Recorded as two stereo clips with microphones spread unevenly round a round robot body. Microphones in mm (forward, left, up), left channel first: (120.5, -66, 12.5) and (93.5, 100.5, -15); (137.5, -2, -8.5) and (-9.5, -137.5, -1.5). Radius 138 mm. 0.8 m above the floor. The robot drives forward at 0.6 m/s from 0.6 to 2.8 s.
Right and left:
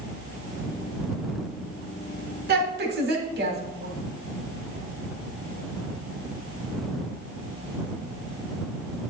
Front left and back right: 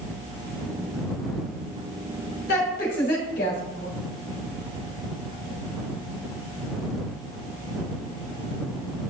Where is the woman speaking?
95° left, 2.5 m; by 3.9 s 100° left, 2.5 m.